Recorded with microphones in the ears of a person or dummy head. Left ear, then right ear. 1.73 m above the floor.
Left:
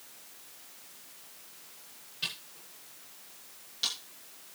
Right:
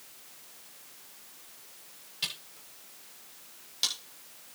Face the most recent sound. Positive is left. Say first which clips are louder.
# right 1 dB
turn(degrees=-25)  # may be behind; listen again after turning